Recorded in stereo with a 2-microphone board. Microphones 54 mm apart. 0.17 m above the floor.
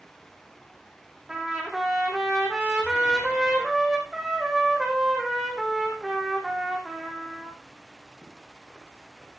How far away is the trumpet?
About 2.5 m.